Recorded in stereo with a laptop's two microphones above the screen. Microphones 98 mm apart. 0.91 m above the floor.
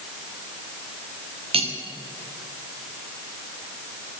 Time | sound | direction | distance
1.5 | cutlery clinking | 75° right (ahead or behind) | 1.2 m